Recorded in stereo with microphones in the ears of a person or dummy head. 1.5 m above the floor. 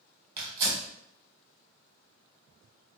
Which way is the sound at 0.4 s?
25° right (ahead or behind).